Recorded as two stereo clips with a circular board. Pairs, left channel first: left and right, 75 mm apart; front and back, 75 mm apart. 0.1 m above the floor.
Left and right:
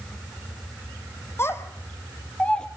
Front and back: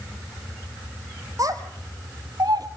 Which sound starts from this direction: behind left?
A child speaking, at 1.4 s.